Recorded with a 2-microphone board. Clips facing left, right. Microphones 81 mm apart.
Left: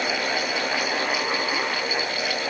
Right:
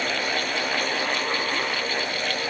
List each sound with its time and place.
Only background noise.